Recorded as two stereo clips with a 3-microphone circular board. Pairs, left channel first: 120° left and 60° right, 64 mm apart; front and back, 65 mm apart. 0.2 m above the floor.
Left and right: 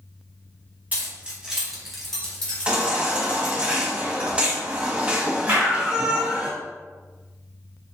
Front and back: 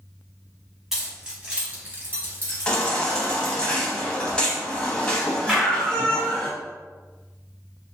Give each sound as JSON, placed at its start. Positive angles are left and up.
{"t": 0.9, "sound": "keys jangling", "azimuth_deg": -100, "distance_m": 1.2}
{"t": 2.7, "sound": "a baby crying", "azimuth_deg": -40, "distance_m": 0.7}
{"t": 5.5, "sound": "a clap", "azimuth_deg": -105, "distance_m": 1.8}